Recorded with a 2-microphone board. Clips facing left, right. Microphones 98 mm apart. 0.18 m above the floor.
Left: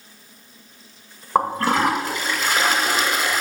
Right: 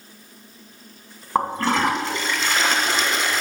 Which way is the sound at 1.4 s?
10° left (ahead or behind).